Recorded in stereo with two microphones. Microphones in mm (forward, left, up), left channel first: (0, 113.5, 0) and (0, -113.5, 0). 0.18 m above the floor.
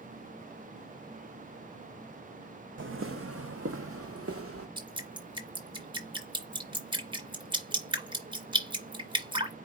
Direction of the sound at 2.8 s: 60° right (ahead or behind).